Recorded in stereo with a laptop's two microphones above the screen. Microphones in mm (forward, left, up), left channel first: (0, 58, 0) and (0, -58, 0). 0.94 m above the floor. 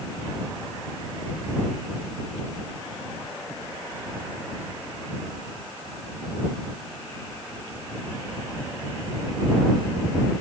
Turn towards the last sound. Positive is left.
No sound to turn to.